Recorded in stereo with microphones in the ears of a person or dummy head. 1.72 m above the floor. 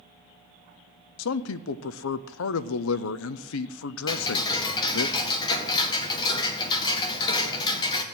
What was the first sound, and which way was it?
A man speaking, 80° left.